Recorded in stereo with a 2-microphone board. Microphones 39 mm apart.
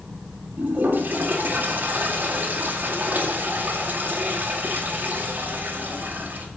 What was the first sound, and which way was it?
A toilet flushing, 60° right (ahead or behind).